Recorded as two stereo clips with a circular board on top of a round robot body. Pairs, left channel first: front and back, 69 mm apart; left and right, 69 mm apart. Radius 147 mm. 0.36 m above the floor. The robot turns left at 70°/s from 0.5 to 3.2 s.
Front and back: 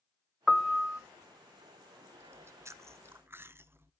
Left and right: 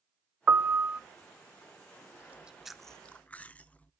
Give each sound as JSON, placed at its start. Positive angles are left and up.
{"t": 0.5, "sound": "a piano", "azimuth_deg": -85, "distance_m": 0.5}
{"t": 2.2, "sound": "chewing", "azimuth_deg": -145, "distance_m": 1.0}